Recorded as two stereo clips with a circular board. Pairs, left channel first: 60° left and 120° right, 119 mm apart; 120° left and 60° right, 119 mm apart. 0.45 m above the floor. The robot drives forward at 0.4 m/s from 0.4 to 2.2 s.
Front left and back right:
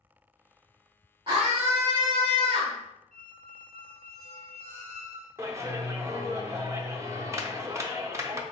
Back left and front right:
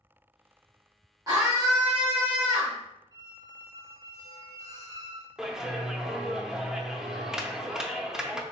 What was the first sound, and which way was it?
A scream, 105° right.